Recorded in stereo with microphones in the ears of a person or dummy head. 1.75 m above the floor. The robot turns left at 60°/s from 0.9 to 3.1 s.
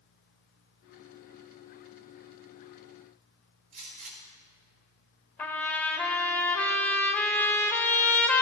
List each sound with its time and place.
3.7 s a gunshot: 40° right (ahead or behind), 1.8 m
5.4 s a trumpet: 10° left (ahead or behind), 0.8 m